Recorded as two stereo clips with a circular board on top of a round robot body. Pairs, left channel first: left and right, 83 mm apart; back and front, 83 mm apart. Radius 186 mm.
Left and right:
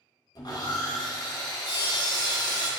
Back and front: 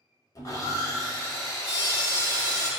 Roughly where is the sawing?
Behind left.